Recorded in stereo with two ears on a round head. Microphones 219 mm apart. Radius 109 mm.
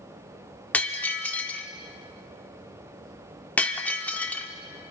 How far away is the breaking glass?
About 1.5 m.